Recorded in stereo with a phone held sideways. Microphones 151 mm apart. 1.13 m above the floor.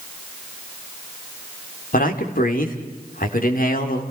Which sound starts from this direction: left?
A man speaking, at 1.9 s.